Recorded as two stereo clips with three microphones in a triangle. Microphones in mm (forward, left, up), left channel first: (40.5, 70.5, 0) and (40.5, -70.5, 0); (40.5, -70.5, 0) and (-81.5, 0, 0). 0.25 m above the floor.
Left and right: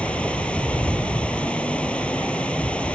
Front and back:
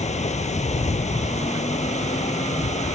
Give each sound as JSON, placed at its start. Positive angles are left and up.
{"t": 0.0, "sound": "running water", "azimuth_deg": 5}